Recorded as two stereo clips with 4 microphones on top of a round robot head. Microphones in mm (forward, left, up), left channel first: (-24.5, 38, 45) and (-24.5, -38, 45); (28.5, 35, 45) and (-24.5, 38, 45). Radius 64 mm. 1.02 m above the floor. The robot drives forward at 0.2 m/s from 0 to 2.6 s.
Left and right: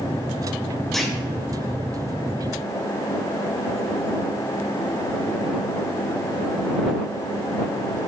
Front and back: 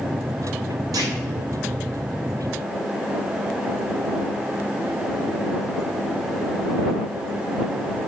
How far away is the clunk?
About 1.7 m.